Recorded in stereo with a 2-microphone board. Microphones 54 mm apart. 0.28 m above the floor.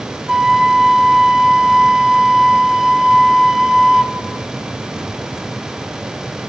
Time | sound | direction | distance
0.3 | a flute | 10° right (ahead or behind) | 2.5 m